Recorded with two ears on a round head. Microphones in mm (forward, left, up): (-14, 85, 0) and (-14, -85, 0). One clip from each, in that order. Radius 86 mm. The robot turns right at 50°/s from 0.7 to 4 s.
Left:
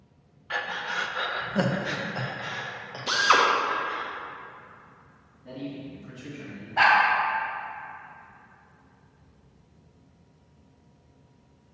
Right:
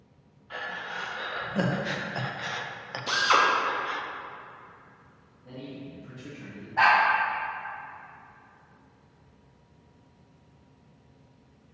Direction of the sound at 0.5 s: 50° left (ahead or behind).